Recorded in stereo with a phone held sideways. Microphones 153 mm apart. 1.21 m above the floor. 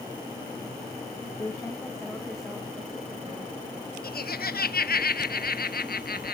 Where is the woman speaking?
25° left (ahead or behind), 1.6 m; by 3.5 s 20° right (ahead or behind), 2.5 m.